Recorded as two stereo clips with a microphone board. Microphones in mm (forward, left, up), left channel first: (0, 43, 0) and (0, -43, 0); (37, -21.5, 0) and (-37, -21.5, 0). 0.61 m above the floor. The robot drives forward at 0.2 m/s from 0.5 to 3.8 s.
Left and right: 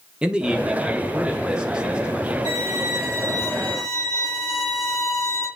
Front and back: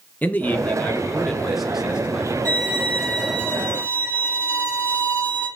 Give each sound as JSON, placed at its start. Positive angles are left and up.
{"t": 0.2, "sound": "a man speaking", "azimuth_deg": -30, "distance_m": 0.6}
{"t": 2.5, "sound": "a violin", "azimuth_deg": -120, "distance_m": 3.0}